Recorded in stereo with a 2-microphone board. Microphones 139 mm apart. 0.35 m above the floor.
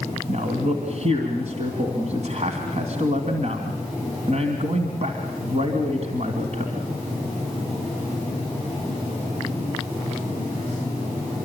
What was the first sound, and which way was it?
A man speaking, 55° right (ahead or behind).